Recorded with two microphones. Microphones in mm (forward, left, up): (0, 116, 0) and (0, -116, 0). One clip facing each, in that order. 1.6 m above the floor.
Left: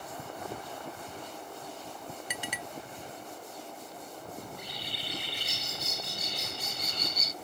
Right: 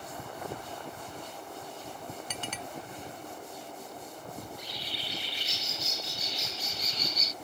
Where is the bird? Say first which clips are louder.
Even; 55° left (ahead or behind).